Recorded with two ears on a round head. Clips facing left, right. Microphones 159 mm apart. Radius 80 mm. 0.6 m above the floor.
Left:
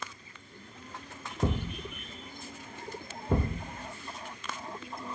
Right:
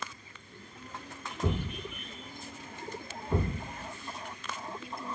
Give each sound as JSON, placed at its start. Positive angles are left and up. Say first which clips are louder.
{"t": 1.4, "sound": "a thud", "louder": "left 1 dB", "side_deg": 50, "distance_m": 0.7}